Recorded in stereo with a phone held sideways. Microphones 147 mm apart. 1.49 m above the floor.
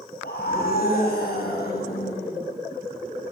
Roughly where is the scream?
Left.